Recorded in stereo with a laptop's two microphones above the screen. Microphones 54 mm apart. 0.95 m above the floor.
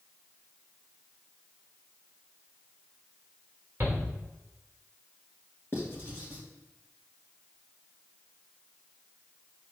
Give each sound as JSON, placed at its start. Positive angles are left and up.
{"t": 3.8, "sound": "a shout", "side_deg": -40, "distance_m": 1.6}
{"t": 5.7, "sound": "writing", "side_deg": 45, "distance_m": 2.0}